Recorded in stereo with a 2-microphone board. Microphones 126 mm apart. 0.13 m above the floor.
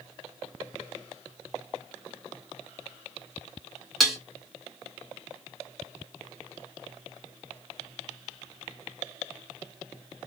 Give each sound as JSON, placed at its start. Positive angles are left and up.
{"t": 4.0, "sound": "dishes clattering", "side_deg": 0, "distance_m": 0.7}